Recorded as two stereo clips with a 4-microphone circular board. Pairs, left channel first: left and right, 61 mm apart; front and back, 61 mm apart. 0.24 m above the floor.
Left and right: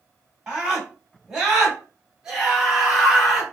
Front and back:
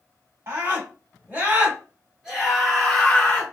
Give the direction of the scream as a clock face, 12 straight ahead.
5 o'clock.